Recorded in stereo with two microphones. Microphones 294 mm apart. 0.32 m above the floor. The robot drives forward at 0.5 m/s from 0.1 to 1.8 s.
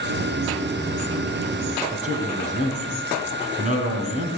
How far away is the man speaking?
About 3 m.